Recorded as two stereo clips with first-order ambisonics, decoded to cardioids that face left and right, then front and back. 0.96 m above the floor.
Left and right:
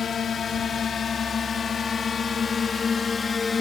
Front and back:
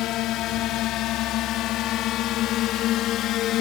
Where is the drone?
30° left; by 3.6 s 20° left.